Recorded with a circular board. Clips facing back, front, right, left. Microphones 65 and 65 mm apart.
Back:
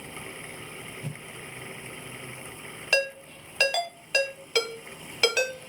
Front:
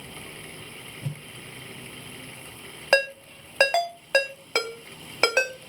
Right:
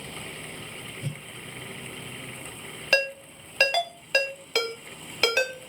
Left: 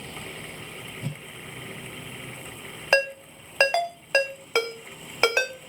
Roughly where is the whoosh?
Left.